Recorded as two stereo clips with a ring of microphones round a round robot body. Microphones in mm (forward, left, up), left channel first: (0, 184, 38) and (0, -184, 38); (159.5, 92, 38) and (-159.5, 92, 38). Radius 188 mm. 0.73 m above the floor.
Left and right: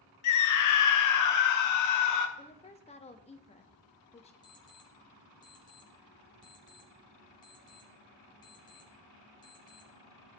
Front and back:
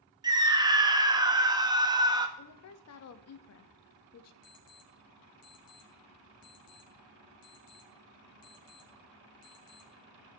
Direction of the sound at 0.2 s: 105° left.